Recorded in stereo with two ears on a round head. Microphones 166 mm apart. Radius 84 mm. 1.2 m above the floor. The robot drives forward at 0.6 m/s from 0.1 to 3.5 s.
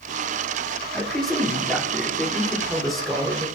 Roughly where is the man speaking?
Centre.